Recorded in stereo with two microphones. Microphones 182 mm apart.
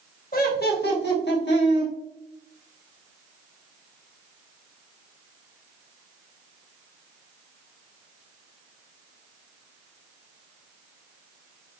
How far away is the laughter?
About 0.8 m.